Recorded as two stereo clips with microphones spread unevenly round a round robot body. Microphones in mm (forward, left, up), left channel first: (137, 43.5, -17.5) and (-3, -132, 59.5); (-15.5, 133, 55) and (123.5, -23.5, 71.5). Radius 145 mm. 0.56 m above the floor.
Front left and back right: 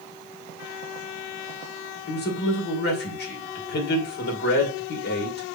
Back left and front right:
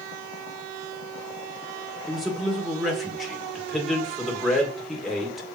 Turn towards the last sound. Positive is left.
turn(degrees=45)